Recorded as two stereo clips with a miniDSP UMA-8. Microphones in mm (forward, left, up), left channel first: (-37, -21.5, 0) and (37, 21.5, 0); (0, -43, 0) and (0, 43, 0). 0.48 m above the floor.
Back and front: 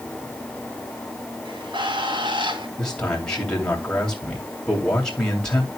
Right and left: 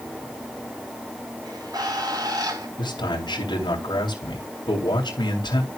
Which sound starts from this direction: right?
A man speaking, at 2.8 s.